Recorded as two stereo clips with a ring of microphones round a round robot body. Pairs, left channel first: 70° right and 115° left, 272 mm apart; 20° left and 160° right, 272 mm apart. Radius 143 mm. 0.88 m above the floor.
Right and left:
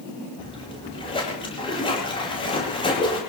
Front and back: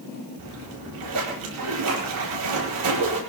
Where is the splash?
140° right, 8.5 m.